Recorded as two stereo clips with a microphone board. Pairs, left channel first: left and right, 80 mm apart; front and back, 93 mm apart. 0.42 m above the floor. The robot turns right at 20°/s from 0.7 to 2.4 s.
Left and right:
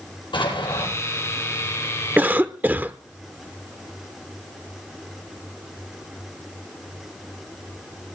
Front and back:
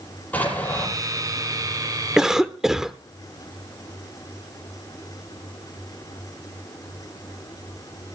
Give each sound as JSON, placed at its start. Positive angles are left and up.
{"t": 0.3, "sound": "an explosion", "azimuth_deg": 75, "distance_m": 9.5}
{"t": 2.2, "sound": "a cough", "azimuth_deg": -110, "distance_m": 0.8}